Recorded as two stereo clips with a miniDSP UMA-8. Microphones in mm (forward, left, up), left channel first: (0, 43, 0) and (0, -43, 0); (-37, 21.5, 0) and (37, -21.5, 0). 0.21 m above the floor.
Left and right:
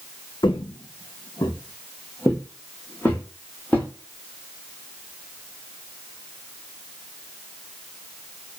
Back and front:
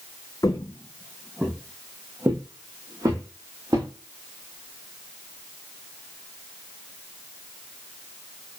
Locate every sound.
0.4 s footsteps: 110° left, 0.6 m; by 3.9 s 15° left, 1.8 m